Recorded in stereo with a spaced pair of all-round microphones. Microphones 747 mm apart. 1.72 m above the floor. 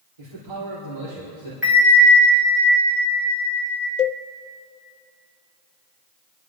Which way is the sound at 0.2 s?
45° right (ahead or behind).